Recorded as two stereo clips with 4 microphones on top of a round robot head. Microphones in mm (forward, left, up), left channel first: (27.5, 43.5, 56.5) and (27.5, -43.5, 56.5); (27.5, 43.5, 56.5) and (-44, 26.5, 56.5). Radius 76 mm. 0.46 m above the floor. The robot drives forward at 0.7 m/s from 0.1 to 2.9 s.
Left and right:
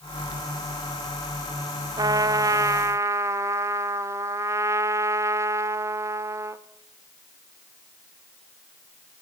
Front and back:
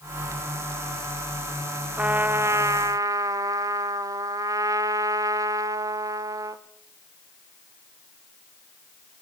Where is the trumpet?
105° right, 1.0 m; by 6.6 s 140° right, 1.3 m.